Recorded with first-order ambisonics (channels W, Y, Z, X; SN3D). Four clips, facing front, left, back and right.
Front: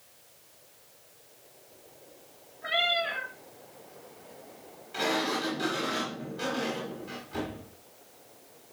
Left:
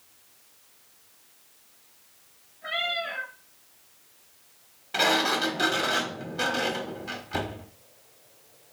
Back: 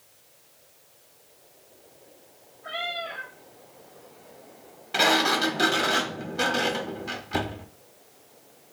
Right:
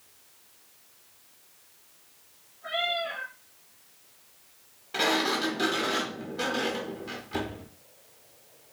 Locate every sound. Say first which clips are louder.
2.6 s a cat meowing: even, front 5 dB; 20° left, 3.5 m
4.9 s a sliding door: left 3 dB, back 8 dB; 165° left, 0.9 m